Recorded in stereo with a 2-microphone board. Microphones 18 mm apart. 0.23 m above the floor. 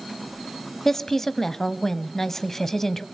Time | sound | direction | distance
0.8 | a woman speaking | 20° left (ahead or behind) | 1.2 m